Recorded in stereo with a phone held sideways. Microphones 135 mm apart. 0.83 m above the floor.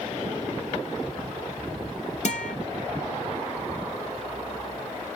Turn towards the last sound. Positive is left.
turn(degrees=60)  # may be behind; listen again after turning